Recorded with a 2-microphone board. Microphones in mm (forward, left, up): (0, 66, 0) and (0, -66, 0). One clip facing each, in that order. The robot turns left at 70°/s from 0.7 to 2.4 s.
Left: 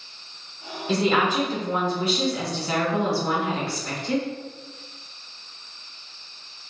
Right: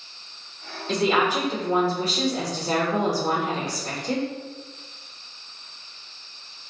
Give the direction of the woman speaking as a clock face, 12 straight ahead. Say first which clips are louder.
Even; 12 o'clock.